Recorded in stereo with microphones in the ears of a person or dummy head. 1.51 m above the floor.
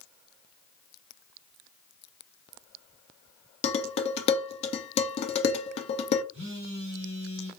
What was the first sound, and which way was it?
Dishes clattering, 40° left (ahead or behind).